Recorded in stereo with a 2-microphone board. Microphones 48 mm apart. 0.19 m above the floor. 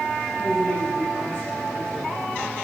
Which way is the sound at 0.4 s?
70° left (ahead or behind).